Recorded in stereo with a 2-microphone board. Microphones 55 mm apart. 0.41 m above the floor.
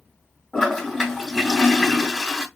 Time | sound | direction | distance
0.5 | a toilet flushing | 5° left (ahead or behind) | 3 m